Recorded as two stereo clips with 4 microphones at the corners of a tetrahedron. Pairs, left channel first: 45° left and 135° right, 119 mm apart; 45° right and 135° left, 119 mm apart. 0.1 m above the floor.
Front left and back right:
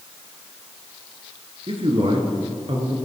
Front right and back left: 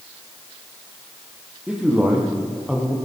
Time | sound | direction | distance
1.7 | a man speaking | 145° right | 2.5 m